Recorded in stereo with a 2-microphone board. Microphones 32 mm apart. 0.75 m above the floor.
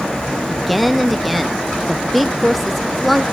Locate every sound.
0.5 s a woman speaking: centre (ahead or behind), 0.9 m